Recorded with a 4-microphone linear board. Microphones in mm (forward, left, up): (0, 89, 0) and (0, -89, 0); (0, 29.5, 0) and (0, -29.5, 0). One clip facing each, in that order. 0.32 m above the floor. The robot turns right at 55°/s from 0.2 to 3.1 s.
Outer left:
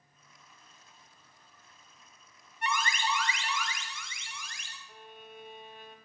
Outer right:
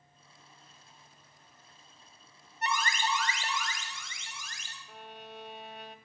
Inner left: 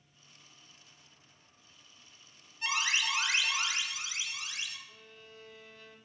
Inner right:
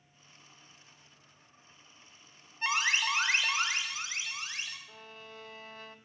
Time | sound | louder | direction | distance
2.6 | an alarm | even, inner right 2 dB | 40° right (ahead or behind) | 1.2 m
4.9 | a violin | outer right 4 dB, inner right 5 dB | 75° right (ahead or behind) | 0.5 m